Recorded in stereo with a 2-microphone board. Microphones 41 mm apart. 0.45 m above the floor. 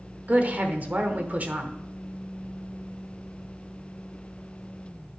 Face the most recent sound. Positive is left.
turn(degrees=-40)  # may be behind; listen again after turning